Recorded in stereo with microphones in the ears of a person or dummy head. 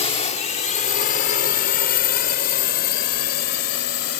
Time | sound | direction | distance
0.0 | a drone | 40° left (ahead or behind) | ?